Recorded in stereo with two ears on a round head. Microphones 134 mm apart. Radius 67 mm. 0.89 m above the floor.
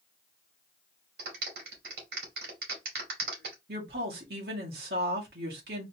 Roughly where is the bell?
No bell in this recording.